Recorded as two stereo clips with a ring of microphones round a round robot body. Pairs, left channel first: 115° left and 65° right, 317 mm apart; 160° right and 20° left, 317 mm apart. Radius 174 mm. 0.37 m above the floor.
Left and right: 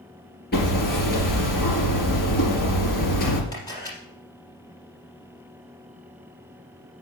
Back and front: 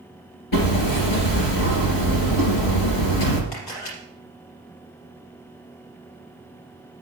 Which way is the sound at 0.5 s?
175° left.